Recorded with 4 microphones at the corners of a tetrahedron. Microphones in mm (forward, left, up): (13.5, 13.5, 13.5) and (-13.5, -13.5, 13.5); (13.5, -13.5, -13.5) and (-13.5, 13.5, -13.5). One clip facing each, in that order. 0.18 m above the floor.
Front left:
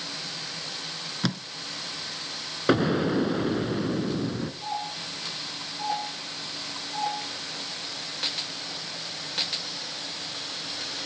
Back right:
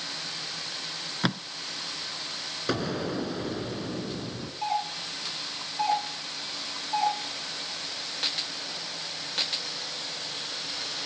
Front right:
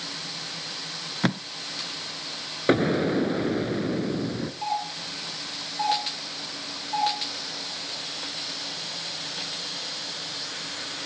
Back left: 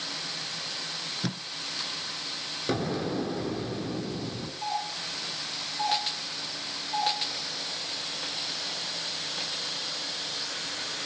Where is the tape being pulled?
65° right, 0.6 m.